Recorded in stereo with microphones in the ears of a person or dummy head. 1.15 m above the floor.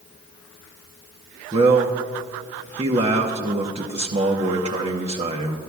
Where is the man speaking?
25° right (ahead or behind), 0.8 m.